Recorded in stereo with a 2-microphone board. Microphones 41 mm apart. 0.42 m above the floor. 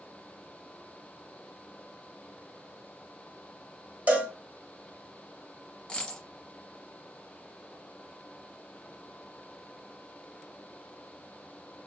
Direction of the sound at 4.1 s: 45° right (ahead or behind).